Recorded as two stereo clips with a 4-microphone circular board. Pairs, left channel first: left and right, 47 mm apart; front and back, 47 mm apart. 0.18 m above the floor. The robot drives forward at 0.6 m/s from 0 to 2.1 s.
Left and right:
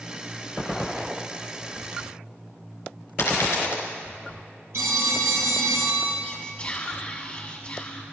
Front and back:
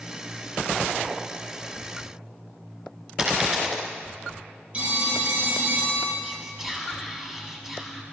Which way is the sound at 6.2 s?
110° left.